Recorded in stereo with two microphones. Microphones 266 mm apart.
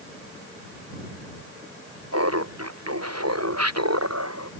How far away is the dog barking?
No dog barking in this recording.